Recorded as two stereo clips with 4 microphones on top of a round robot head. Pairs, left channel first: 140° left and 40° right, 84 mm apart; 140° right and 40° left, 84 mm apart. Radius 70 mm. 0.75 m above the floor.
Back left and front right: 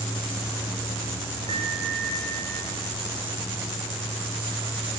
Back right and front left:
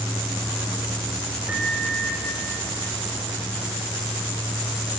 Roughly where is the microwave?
Ahead right.